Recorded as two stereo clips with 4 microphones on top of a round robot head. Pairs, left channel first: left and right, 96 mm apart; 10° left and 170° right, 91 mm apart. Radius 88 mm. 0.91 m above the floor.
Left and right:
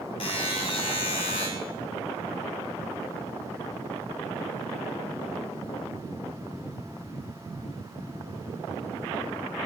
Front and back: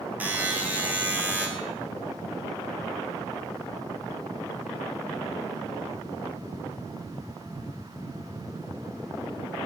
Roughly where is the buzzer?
Behind left.